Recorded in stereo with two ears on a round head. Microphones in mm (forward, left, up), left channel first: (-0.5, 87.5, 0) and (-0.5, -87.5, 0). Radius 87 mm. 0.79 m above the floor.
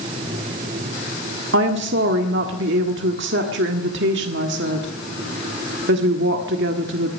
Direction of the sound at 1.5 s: 65° right (ahead or behind).